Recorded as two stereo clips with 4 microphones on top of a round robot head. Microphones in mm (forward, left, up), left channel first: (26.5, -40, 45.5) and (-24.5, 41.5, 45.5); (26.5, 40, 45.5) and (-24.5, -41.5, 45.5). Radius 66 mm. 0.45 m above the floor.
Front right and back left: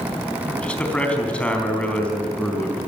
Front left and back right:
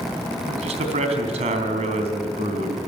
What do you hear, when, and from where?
0.5 s a man speaking: 135° right, 3.5 m